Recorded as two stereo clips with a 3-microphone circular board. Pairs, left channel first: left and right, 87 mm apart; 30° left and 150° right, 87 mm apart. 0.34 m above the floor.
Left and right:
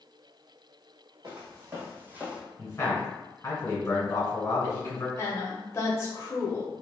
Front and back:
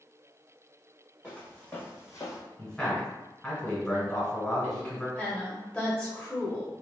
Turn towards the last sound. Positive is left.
turn(degrees=95)